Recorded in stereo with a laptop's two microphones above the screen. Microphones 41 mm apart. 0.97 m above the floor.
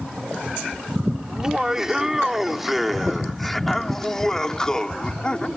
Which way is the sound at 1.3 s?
20° right (ahead or behind).